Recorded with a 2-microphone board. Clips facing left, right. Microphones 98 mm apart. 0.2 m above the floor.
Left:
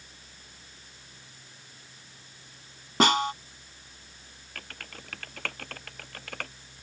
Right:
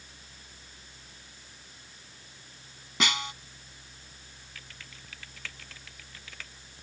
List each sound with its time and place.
3.0 s a snare drum: 45° left (ahead or behind)
4.5 s typing on a keyboard: 60° left (ahead or behind)